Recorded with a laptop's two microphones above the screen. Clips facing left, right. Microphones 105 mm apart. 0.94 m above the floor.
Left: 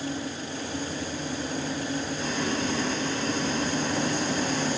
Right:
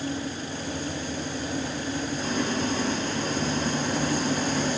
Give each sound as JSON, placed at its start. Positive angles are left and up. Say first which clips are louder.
{"t": 2.2, "sound": "boiling", "louder": "right 2 dB", "side_deg": -45, "distance_m": 3.0}